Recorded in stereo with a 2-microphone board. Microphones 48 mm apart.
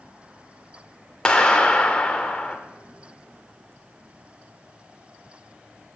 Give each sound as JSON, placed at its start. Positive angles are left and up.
{"t": 1.2, "sound": "a clap", "side_deg": 20, "distance_m": 0.6}